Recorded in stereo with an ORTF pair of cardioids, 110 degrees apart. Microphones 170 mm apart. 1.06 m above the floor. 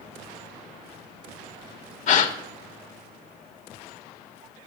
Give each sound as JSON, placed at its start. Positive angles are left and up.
{"t": 2.1, "sound": "a gasp", "azimuth_deg": 50, "distance_m": 1.8}